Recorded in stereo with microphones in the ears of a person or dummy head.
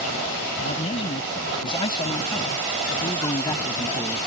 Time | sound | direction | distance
0.6 | a man speaking | 30° left (ahead or behind) | ?